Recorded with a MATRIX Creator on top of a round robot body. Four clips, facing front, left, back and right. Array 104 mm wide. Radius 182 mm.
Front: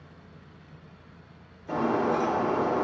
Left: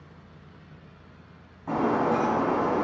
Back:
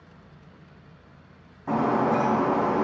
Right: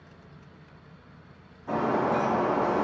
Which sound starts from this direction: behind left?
Breaking glass, at 1.7 s.